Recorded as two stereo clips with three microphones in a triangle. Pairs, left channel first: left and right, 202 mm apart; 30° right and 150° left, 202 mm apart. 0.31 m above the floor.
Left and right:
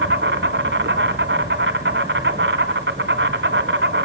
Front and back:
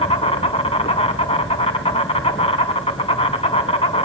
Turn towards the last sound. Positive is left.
turn(degrees=-90)